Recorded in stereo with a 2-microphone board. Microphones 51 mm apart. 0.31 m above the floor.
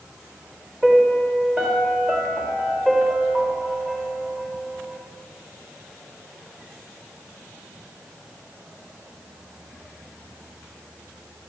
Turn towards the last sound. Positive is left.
turn(degrees=-25)  # may be behind; listen again after turning